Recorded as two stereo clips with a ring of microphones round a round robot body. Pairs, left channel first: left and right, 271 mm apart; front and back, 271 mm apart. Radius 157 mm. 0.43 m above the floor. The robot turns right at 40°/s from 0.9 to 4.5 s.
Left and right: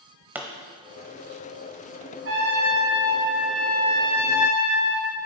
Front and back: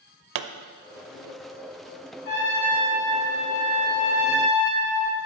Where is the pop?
175° right, 0.6 m.